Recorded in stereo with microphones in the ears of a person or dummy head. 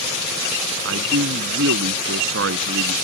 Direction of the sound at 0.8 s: 85° right.